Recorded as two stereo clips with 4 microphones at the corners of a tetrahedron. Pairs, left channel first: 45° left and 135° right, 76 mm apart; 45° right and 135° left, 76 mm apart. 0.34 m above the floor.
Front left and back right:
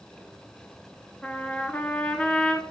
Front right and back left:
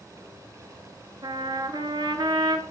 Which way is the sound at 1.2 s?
120° left.